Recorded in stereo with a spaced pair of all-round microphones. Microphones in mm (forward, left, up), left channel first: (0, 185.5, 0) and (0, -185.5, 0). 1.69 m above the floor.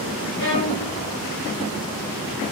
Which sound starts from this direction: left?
A violin, at 0.4 s.